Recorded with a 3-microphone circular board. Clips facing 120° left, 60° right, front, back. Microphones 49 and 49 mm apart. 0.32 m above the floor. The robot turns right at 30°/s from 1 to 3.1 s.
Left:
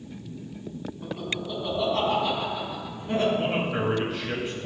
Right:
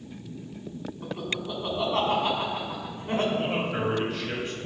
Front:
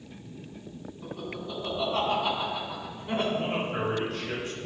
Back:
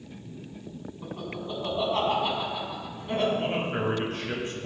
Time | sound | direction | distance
1.0 | laughter | 145° right | 2.5 m
3.3 | a man speaking | 160° right | 1.6 m